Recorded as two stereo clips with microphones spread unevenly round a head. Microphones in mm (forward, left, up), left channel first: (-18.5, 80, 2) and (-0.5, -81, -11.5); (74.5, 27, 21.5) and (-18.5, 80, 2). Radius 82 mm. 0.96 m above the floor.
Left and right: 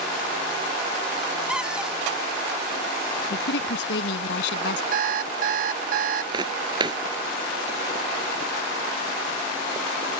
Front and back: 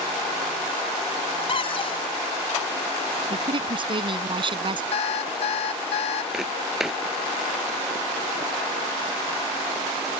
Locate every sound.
1.5 s a cupboard door: straight ahead
3.3 s a woman speaking: 110° left
4.9 s an alarm clock: 45° right
6.3 s footsteps: 100° right